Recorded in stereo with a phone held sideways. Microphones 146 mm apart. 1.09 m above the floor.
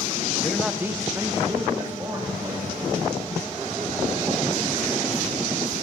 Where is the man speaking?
10° left (ahead or behind), 0.5 m; by 2.7 s 20° right (ahead or behind), 3 m.